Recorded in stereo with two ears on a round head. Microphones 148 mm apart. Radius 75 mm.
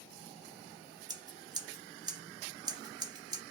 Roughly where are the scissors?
Right.